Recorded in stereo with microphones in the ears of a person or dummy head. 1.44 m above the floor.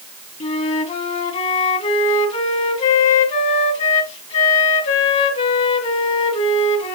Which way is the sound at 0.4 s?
35° left (ahead or behind).